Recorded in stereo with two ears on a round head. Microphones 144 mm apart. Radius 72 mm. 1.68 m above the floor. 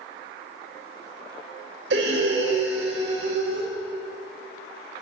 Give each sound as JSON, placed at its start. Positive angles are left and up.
{"t": 1.9, "sound": "breathing", "side_deg": -75, "distance_m": 2.0}